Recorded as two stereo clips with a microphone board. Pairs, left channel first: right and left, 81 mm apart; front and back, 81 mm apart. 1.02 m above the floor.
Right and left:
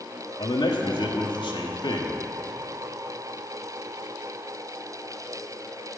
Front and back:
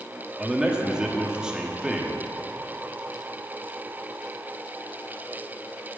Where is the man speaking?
100° right, 1.8 m.